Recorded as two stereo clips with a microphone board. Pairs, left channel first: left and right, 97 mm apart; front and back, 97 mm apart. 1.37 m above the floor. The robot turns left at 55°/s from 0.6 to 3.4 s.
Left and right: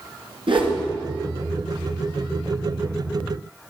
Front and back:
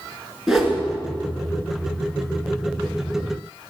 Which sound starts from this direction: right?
A whoosh, at 0.5 s.